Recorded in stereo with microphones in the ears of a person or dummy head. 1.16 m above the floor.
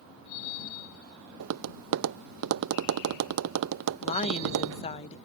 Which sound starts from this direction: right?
Tapping, at 1.4 s.